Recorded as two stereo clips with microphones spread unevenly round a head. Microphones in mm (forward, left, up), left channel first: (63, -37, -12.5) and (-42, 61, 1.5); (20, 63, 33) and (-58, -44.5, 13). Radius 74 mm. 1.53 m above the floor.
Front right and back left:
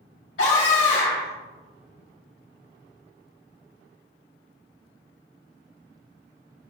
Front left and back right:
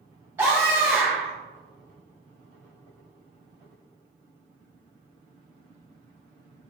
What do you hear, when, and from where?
0.4 s a scream: 55° right, 2.5 m